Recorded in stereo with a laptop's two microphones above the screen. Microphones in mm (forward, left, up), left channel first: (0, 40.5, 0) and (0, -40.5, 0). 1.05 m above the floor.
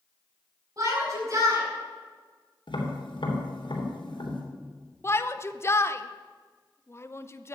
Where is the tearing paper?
No tearing paper in this recording.